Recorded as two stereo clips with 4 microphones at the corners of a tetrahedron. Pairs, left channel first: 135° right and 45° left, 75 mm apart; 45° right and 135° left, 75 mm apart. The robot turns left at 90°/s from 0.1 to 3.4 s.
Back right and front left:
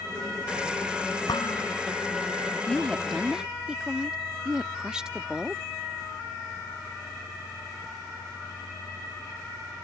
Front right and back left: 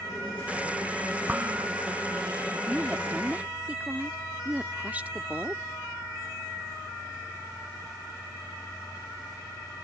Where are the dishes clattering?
155° right; by 1.7 s 170° left.